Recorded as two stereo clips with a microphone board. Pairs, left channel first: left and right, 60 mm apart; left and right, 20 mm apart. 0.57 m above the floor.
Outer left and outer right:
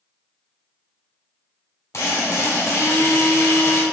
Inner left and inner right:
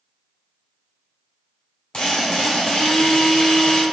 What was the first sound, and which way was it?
A drill, 55° left (ahead or behind).